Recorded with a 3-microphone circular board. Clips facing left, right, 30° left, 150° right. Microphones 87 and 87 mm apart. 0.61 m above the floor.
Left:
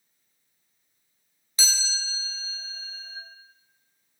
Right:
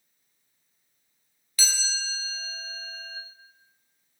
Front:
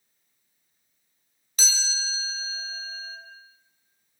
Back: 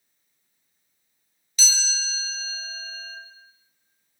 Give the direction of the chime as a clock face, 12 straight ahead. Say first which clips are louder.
Even, back 1 dB; 11 o'clock.